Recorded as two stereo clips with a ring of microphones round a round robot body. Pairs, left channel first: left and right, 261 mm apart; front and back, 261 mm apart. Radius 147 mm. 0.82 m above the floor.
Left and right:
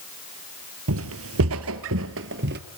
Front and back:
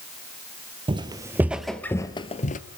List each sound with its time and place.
0.9 s footsteps: 115° right, 1.3 m; by 2.6 s 50° right, 1.0 m